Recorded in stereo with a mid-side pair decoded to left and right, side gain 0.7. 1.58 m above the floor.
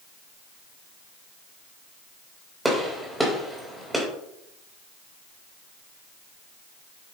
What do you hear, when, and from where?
2.6 s a gunshot: 5° right, 3.5 m